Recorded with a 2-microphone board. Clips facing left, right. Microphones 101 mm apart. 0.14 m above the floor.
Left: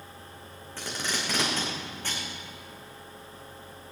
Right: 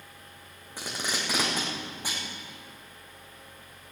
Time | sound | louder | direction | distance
0.8 | tape being pulled | even | 10° right (ahead or behind) | 5 m